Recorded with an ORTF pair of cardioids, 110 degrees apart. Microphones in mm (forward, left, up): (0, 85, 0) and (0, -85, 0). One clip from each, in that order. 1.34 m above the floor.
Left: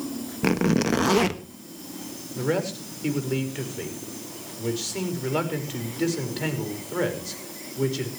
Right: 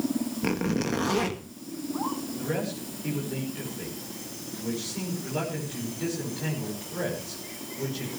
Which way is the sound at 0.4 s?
30° left.